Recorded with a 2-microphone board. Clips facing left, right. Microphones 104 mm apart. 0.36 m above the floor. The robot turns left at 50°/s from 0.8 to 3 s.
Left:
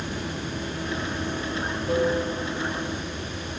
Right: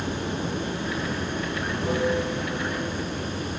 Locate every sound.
0.0 s running water: 25° right, 2.5 m; by 3.6 s 135° right, 2.5 m